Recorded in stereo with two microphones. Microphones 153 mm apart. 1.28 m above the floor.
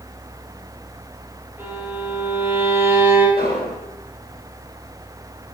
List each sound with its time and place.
1.6 s a violin: 15° right (ahead or behind), 5.5 m
3.4 s an explosion: 85° left, 5 m